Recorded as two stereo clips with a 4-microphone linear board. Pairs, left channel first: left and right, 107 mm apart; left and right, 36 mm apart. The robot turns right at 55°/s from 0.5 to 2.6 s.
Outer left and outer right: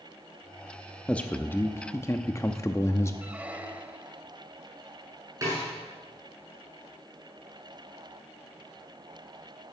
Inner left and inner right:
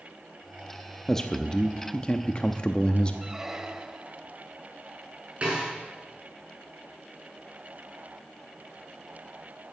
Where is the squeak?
15° right (ahead or behind), 0.9 m.